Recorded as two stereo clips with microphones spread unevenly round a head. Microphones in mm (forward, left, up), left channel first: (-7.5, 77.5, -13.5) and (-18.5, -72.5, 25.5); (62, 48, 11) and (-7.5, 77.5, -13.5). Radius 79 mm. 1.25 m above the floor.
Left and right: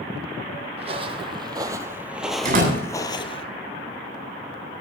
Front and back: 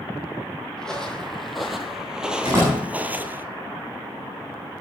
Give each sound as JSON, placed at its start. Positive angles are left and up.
{"t": 0.8, "sound": "footsteps", "azimuth_deg": -85, "distance_m": 1.9}
{"t": 2.5, "sound": "a door slam", "azimuth_deg": -125, "distance_m": 8.5}